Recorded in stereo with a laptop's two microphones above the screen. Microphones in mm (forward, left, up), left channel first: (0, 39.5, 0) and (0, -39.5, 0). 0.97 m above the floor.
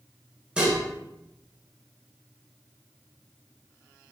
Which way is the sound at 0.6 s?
15° right (ahead or behind).